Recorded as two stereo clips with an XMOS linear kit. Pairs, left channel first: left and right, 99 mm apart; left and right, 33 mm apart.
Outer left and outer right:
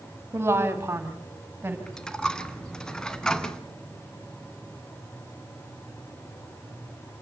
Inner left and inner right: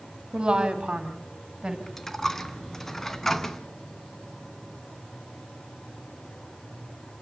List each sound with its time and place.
0.3 s a woman speaking: 25° right (ahead or behind), 2.5 m
1.9 s a dropped coin: 10° left (ahead or behind), 1.5 m